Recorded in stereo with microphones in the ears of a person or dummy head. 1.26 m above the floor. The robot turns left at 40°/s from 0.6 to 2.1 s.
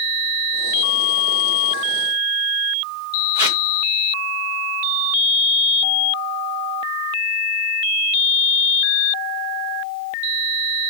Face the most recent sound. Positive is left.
turn(degrees=-15)  # may be behind; listen again after turning